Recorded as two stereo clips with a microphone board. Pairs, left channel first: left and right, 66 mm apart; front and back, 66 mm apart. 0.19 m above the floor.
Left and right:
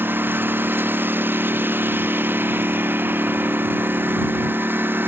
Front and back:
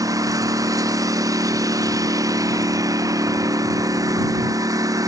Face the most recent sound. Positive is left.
turn(degrees=-150)